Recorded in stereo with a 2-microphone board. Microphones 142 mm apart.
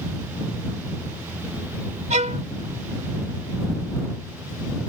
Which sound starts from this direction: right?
A violin, at 2.1 s.